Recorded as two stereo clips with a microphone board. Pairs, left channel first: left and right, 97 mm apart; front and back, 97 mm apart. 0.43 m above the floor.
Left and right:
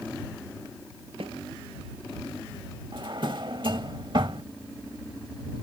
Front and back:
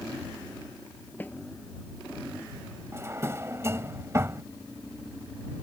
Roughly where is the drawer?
Behind right.